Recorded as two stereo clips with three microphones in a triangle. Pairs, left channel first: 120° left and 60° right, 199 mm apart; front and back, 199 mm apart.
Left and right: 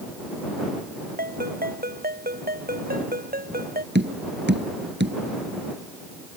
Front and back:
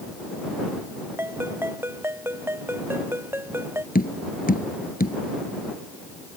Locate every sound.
1.2 s a ringtone: 100° right
4.0 s tapping: 40° right